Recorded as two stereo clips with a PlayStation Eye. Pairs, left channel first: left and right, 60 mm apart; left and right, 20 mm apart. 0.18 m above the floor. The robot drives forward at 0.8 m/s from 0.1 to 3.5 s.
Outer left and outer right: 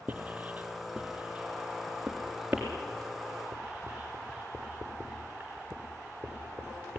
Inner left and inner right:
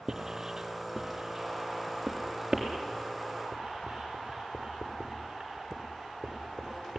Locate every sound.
0.1 s writing: 30° right (ahead or behind), 2 m; by 7.0 s 15° right (ahead or behind), 4.5 m